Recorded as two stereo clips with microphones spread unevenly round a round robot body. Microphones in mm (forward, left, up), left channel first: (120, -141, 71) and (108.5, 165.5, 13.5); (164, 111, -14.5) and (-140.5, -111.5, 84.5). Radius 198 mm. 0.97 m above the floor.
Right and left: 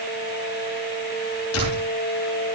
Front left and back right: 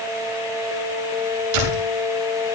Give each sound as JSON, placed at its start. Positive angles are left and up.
{"t": 1.5, "sound": "a door slam", "azimuth_deg": -140, "distance_m": 9.5}